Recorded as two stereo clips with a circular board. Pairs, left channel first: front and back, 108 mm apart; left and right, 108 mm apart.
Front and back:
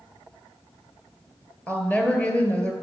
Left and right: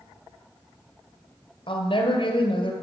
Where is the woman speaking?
75° left, 1.9 m.